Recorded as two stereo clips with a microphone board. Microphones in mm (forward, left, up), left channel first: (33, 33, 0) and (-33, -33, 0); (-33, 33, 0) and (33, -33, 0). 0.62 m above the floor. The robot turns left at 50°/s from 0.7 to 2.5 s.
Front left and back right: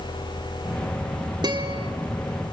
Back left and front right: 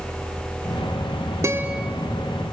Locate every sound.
1.4 s a guitar: 100° right, 1.5 m; by 1.9 s 125° right, 1.5 m